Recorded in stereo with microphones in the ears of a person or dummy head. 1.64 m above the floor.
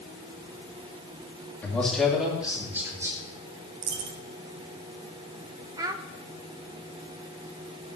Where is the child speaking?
20° right (ahead or behind), 1.2 m.